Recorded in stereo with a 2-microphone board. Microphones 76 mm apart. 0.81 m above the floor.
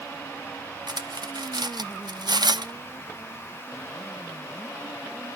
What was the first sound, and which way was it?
Cutlery clinking, 65° right (ahead or behind).